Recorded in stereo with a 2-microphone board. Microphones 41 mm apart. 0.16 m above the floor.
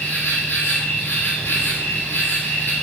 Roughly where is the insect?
Left.